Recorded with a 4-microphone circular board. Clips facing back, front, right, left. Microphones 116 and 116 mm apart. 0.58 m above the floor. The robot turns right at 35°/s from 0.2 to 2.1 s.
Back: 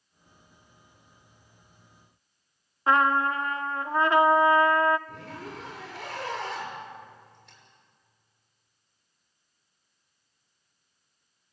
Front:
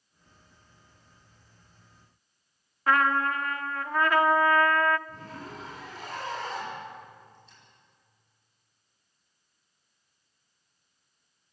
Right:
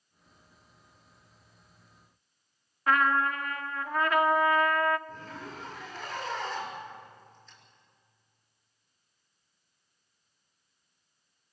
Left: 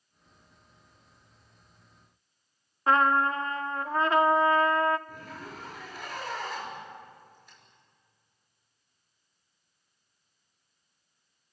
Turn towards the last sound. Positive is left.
turn(degrees=165)